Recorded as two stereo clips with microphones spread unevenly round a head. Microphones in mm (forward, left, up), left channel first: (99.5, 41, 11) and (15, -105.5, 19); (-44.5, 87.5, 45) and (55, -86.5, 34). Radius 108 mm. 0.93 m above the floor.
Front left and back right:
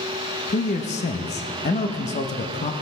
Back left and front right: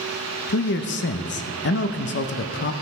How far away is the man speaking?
About 0.7 m.